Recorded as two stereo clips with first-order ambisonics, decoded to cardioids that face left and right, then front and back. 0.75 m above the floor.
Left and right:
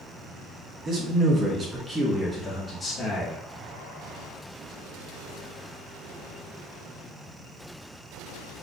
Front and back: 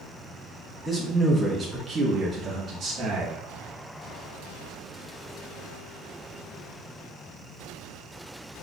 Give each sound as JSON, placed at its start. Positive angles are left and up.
{"t": 0.8, "sound": "a man speaking", "azimuth_deg": -65, "distance_m": 1.1}